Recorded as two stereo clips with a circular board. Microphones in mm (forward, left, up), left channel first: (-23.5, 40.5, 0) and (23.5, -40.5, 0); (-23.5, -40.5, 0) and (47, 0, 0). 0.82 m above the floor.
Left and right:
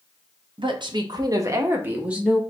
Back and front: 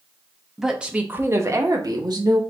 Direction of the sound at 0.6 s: 55° right.